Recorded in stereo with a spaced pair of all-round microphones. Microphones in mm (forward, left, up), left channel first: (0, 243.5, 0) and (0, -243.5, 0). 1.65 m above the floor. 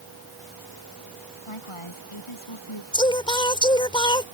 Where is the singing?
10° left (ahead or behind).